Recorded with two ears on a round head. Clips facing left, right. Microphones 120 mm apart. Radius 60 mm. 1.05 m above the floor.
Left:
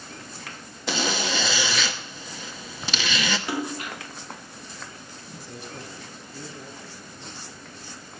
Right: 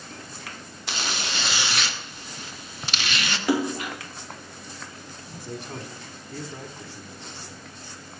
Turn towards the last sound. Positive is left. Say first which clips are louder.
# right 4 dB
turn(degrees=-55)  # may be behind; listen again after turning